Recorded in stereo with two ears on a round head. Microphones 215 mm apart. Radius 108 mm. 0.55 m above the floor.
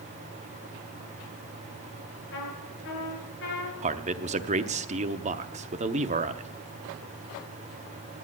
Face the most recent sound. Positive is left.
turn(degrees=-30)  # may be behind; listen again after turning